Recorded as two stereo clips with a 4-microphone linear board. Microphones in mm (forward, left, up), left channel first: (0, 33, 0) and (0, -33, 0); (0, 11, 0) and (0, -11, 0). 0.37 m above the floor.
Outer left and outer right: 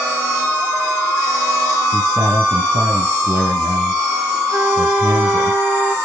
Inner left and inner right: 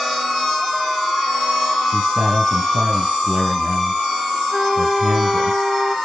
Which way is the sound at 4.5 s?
20° right (ahead or behind).